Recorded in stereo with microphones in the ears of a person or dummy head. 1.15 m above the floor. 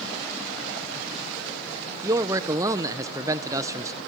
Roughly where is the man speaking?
Centre.